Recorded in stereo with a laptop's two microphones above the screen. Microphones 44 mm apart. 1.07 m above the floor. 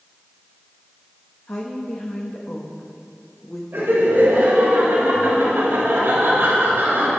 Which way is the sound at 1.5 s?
60° left (ahead or behind).